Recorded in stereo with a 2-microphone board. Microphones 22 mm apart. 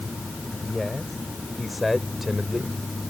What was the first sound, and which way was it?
A man speaking, 5° left (ahead or behind).